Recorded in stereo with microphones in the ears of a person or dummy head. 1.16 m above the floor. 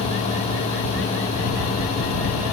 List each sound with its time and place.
Only background noise.